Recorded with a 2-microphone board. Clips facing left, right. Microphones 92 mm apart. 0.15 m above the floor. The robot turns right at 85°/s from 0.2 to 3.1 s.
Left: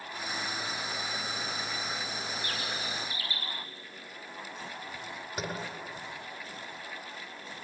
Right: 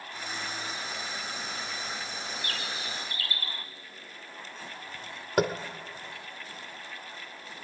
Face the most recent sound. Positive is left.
turn(degrees=-75)  # may be behind; listen again after turning